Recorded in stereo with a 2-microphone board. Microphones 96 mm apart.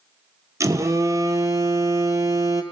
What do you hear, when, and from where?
0.6 s a phone buzzing: 35° right (ahead or behind), 0.8 m